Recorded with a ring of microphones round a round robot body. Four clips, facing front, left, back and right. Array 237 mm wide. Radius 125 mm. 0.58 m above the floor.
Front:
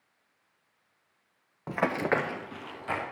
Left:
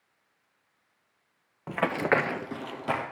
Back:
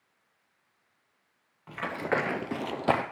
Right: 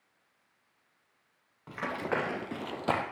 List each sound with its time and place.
1.7 s running footsteps: 35° left, 1.0 m; by 3.0 s 170° right, 1.4 m